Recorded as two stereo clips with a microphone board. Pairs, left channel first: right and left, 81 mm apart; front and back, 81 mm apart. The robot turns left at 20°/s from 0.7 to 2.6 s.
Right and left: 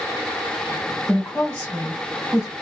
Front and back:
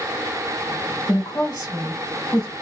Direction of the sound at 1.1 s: 5° right.